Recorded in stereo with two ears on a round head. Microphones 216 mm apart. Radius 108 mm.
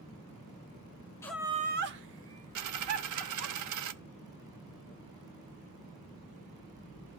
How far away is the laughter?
About 0.5 m.